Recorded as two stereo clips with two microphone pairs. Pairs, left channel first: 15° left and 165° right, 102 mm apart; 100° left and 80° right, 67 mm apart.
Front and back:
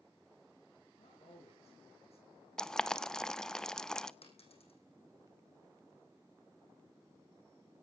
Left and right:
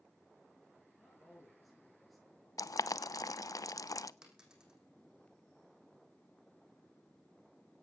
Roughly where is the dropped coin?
Ahead.